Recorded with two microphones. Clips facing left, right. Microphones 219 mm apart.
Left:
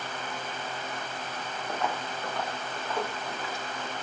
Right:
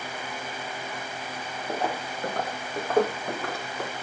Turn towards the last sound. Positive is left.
turn(degrees=-65)  # may be behind; listen again after turning